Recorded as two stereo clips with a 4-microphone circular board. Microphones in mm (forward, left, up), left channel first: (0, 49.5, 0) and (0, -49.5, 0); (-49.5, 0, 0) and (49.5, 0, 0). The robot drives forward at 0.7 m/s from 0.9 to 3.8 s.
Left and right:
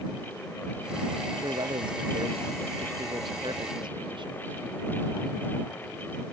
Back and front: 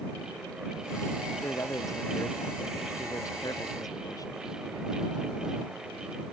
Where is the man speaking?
120° right; by 4.4 s 125° right.